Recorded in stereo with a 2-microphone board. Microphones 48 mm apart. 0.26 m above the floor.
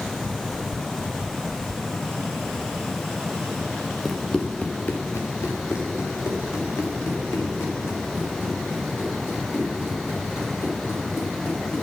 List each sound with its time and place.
4.0 s running footsteps: 5° left (ahead or behind), 1.6 m; by 11.8 s 60° left (ahead or behind), 10.5 m